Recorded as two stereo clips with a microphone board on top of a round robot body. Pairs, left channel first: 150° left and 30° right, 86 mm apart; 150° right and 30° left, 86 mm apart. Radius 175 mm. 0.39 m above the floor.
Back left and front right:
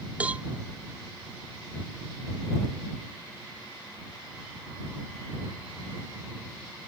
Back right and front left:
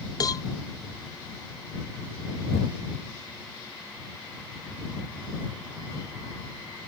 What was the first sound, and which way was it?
A cowbell, 105° right.